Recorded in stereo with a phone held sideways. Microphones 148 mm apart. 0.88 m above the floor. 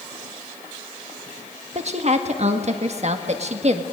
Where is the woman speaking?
50° right (ahead or behind), 1.5 m.